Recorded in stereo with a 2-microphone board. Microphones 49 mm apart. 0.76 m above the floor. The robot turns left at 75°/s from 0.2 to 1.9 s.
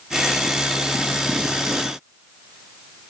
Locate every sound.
Only background noise.